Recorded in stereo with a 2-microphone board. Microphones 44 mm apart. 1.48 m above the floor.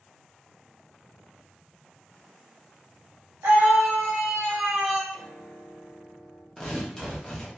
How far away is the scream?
About 1.5 m.